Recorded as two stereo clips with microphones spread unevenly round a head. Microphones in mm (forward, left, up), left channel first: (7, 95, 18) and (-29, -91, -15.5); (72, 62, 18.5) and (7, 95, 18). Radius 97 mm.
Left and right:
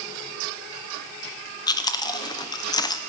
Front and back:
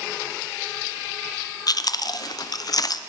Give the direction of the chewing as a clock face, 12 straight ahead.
12 o'clock.